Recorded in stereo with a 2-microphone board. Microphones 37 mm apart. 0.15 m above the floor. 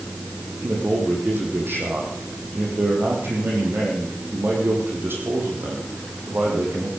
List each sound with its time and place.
0.6 s a man speaking: 75° right (ahead or behind), 6.5 m